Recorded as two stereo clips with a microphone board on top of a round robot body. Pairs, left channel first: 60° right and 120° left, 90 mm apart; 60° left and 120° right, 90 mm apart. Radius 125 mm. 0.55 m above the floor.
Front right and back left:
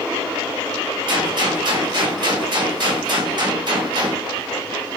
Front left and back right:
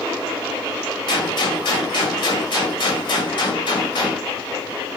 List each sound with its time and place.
1.1 s a gunshot: 85° left, 1.6 m